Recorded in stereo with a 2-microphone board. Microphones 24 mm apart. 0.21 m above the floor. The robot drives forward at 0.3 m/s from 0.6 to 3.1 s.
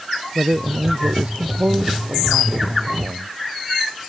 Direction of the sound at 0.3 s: 75° right (ahead or behind).